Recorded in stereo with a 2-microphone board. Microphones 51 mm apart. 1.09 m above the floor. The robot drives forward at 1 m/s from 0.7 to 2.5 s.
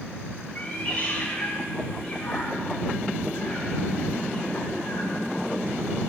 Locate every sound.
0.6 s a cat meowing: 35° left (ahead or behind), 2.5 m; by 5.2 s 20° left (ahead or behind), 4 m